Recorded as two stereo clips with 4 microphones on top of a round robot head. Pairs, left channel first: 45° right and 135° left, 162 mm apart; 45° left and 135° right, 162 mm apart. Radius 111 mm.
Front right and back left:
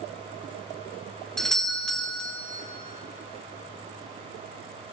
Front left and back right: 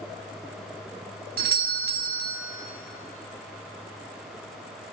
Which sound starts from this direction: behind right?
A doorbell, at 1.4 s.